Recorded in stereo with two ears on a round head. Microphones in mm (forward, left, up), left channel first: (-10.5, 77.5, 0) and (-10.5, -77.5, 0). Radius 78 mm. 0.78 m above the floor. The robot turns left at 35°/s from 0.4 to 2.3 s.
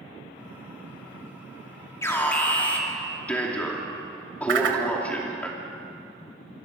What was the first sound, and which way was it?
An alarm, 15° left (ahead or behind).